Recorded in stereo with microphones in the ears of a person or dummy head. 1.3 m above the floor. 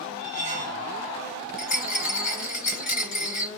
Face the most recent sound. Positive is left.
turn(degrees=50)  # may be behind; listen again after turning